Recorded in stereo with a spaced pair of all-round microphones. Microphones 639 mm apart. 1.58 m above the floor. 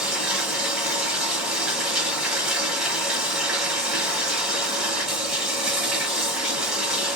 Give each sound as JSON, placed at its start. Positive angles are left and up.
{"t": 0.0, "sound": "running water", "side_deg": 0, "distance_m": 1.7}